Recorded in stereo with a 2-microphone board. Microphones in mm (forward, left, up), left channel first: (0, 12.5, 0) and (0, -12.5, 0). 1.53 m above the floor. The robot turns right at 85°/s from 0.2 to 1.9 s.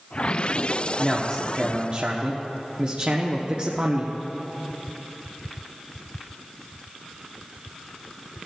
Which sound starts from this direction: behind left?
A man speaking, at 1.0 s.